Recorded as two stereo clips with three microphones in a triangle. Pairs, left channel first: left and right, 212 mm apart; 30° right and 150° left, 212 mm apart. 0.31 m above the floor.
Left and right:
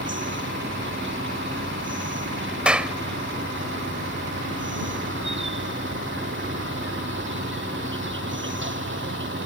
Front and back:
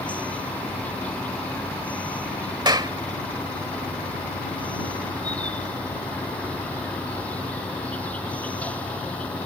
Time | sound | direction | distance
0.0 | an insect | 115° right | ?
2.6 | a clap | 170° right | ?